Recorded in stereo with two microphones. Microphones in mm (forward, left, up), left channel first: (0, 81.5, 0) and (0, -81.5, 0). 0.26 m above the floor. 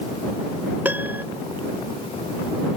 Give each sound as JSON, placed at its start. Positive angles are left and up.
{"t": 0.8, "sound": "a piano", "side_deg": -10}